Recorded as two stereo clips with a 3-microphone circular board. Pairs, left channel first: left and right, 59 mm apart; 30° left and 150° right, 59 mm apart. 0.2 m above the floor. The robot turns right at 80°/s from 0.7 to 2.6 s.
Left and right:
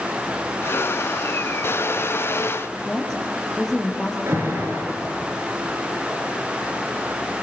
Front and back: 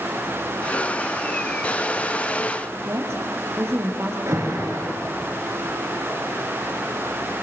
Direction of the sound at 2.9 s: 175° left.